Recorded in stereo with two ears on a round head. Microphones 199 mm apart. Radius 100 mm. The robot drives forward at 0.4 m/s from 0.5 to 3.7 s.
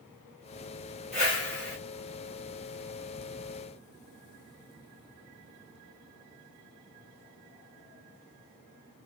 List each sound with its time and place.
1.1 s a whoosh: 30° left (ahead or behind), 3 m; by 1.8 s 35° left (ahead or behind), 2.5 m